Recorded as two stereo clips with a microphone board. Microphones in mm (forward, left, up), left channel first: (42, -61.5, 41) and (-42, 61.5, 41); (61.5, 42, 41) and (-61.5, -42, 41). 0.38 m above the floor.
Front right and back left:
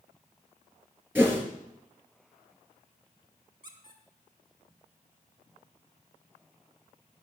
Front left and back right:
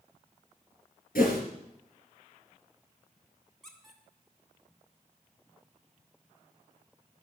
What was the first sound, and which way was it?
A whoosh, 45° left.